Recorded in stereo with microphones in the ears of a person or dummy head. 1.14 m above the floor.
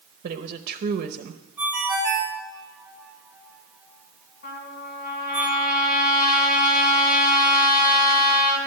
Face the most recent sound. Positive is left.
turn(degrees=55)  # may be behind; listen again after turning